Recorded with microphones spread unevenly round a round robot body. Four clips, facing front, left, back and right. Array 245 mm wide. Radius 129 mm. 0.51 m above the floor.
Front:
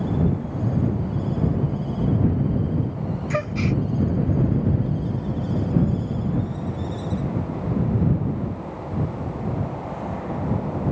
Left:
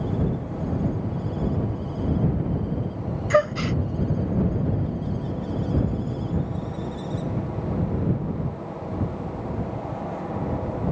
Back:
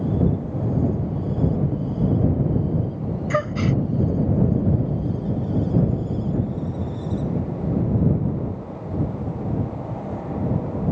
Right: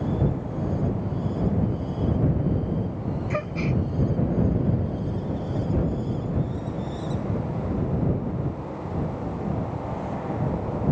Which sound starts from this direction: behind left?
A gasp, at 3.3 s.